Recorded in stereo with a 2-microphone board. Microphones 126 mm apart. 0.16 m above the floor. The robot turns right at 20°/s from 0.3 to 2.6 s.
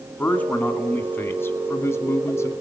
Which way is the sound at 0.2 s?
10° left (ahead or behind).